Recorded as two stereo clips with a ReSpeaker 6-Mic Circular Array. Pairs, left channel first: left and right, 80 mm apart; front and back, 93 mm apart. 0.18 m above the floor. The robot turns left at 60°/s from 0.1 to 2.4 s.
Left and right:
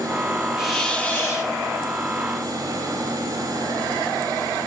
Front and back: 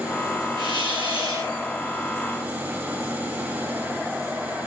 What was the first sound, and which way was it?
A hiss, 175° right.